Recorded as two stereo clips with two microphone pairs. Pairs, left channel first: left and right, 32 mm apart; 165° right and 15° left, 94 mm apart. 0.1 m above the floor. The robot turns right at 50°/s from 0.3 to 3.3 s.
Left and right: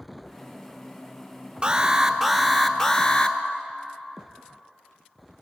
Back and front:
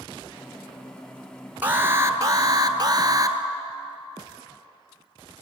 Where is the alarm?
50° right, 1.2 m; by 3.4 s 35° left, 1.2 m.